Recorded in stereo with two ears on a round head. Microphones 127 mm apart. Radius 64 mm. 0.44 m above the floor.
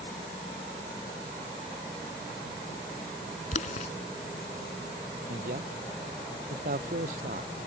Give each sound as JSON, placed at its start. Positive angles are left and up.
{"t": 3.5, "sound": "boiling", "side_deg": 65}
{"t": 5.3, "sound": "a man speaking", "side_deg": -70}